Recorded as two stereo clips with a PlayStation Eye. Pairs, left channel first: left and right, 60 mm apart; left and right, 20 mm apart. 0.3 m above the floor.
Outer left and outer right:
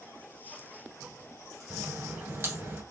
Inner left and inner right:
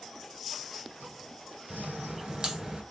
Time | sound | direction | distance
1.7 | a crack | 40° right (ahead or behind) | 1.9 m